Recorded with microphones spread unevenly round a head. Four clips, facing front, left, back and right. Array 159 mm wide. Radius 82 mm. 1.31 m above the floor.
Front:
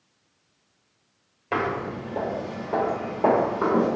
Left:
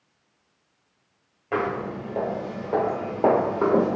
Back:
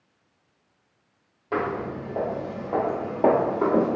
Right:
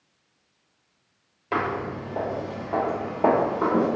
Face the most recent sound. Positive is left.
turn(degrees=120)